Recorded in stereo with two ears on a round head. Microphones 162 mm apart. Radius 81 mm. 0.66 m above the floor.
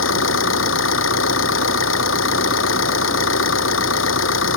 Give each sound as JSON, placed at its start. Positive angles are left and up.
{"t": 0.0, "sound": "an engine running", "side_deg": 80}